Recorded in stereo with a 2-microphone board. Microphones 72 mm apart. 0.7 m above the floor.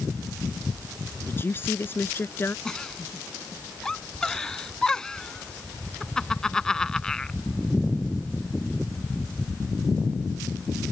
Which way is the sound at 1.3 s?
30° left (ahead or behind).